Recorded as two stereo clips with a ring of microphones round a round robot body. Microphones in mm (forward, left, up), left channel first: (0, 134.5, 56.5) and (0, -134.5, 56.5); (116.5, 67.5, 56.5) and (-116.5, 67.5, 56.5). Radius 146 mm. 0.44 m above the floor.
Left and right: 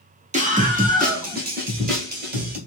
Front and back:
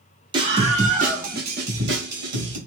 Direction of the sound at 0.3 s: 125° right.